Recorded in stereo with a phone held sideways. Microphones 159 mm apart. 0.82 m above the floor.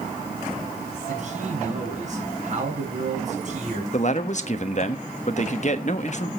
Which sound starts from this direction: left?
A man speaking, at 3.9 s.